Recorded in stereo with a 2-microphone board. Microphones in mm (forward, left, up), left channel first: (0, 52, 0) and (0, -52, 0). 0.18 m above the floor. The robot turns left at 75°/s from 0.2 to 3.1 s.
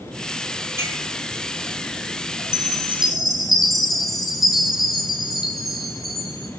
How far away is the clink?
About 4 m.